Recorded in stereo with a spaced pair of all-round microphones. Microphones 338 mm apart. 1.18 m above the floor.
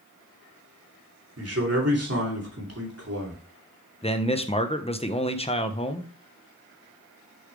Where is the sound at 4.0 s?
15° left (ahead or behind), 0.8 m.